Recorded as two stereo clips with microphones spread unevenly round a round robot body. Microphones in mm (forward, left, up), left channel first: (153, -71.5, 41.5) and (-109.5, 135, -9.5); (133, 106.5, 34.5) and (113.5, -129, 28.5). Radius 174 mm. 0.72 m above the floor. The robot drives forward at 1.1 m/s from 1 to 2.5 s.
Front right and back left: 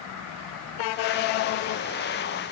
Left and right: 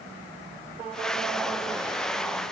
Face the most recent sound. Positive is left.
No sound to turn to.